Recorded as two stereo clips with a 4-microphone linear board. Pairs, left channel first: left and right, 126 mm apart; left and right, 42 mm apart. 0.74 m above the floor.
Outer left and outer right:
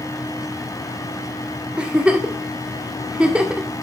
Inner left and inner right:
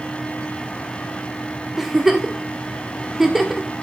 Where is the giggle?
10° right (ahead or behind), 1.8 m.